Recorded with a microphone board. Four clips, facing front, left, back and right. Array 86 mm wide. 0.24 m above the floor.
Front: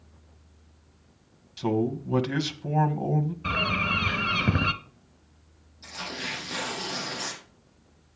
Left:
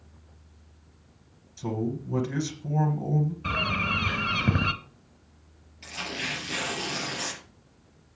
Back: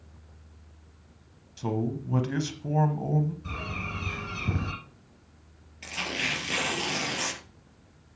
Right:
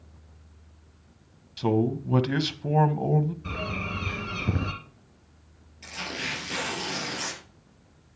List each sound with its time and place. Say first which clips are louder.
1.6 s a man speaking: right 6 dB, front 4 dB; 65° right, 1.2 m
3.4 s a bird: left 4 dB, front 9 dB; 35° left, 1.2 m
5.8 s tearing paper: even, back 3 dB; 175° left, 4 m